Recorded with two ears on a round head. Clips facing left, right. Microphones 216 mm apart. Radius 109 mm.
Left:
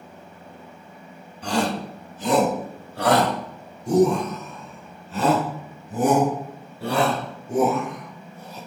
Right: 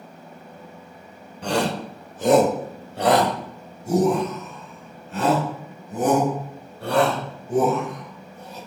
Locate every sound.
1.4 s a shout: 50° right (ahead or behind), 1.4 m; by 8.6 s 10° left (ahead or behind), 8 m